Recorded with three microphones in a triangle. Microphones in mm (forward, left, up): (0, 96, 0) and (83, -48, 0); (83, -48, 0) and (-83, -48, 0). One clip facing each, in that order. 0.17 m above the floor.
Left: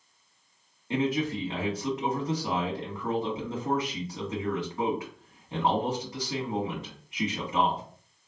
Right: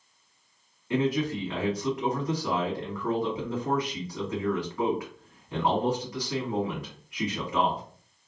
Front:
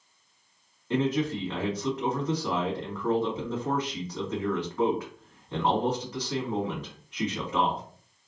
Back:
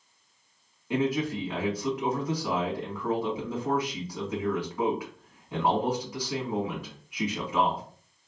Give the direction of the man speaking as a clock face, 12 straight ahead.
8 o'clock.